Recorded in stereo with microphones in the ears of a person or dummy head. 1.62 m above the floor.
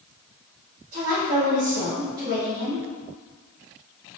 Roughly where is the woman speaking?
Right.